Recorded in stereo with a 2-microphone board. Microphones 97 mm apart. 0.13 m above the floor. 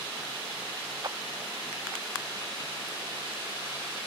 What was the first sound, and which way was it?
A clap, 40° right (ahead or behind).